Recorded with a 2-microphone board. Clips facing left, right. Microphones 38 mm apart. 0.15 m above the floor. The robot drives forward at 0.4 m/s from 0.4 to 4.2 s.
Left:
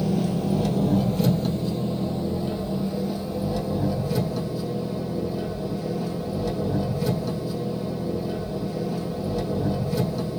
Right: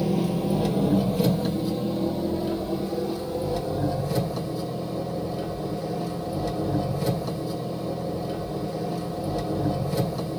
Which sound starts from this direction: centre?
An engine running, at 0.0 s.